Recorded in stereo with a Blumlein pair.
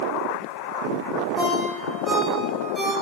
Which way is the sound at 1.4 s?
Straight ahead.